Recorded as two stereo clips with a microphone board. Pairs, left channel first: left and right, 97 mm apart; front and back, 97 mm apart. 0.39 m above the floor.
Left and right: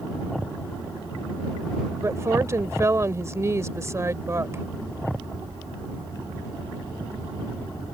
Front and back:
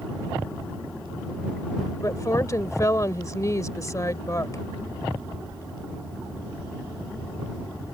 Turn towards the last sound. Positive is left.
turn(degrees=-40)